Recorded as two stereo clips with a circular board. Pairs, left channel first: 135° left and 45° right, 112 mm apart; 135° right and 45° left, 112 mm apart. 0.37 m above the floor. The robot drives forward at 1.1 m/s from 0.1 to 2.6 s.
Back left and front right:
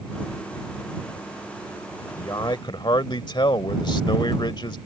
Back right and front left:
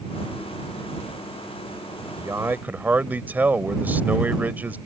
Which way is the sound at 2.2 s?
90° left.